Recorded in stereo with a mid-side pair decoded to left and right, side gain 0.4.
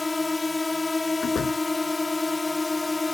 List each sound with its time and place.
0.0 s a drone: 25° left
1.2 s a door slam: 60° left